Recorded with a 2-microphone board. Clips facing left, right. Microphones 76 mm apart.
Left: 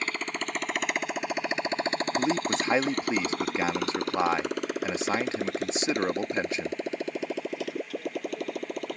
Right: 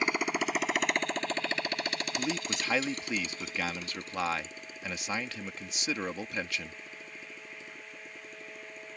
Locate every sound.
0.0 s a motorcycle: 15° right (ahead or behind); by 9.0 s 80° left
2.2 s a man speaking: 25° left (ahead or behind)